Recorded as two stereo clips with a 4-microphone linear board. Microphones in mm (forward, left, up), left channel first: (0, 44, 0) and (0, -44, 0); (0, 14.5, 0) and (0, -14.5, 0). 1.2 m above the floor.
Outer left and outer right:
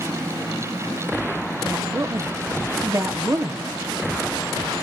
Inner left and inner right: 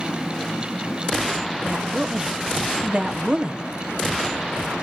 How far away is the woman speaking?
About 0.8 m.